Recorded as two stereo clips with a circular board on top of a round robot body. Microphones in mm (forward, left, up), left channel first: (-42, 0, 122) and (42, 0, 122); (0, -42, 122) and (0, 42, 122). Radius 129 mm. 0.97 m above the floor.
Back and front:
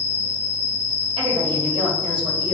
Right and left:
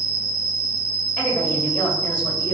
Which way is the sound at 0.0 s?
155° right.